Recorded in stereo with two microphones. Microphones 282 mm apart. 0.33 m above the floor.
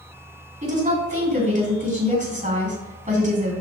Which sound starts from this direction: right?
A woman speaking, at 0.6 s.